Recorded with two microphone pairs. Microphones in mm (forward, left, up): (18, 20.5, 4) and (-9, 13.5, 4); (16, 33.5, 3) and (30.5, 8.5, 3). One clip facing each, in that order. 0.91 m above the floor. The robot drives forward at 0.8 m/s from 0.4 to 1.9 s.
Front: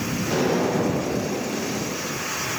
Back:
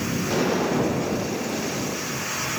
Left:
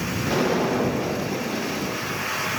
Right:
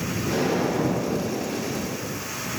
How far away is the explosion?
About 1.0 m.